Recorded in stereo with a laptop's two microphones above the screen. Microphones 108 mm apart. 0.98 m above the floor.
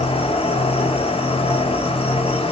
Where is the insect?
65° left (ahead or behind), 3.5 m.